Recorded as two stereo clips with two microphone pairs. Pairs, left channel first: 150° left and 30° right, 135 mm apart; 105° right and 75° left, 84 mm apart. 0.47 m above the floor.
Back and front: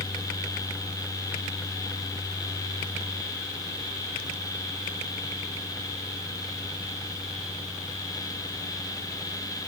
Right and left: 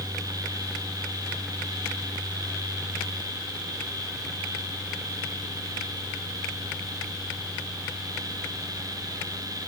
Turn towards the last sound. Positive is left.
No sound to turn to.